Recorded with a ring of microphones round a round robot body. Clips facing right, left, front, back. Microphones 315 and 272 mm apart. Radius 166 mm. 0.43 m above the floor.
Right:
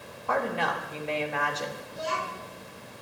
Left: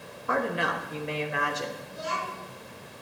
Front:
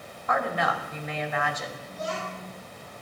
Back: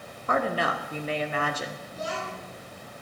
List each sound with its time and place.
0.3 s a woman speaking: 150° left, 0.9 m
1.9 s a child speaking: 145° right, 3.5 m